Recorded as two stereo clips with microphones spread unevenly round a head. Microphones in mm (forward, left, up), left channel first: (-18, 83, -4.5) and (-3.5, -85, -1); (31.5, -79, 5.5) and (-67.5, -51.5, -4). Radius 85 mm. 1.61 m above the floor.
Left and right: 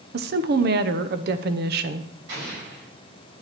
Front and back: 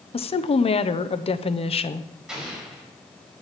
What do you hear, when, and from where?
0.1 s a woman speaking: 45° right, 0.9 m
2.3 s an explosion: 110° right, 6 m